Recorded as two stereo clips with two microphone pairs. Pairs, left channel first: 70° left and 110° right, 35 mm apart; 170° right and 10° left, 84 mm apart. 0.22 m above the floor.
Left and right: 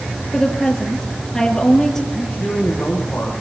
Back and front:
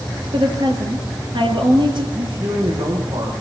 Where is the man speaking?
15° left, 8 m.